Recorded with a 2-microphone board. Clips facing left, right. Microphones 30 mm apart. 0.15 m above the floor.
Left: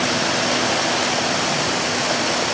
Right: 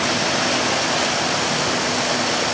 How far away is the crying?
No crying in this recording.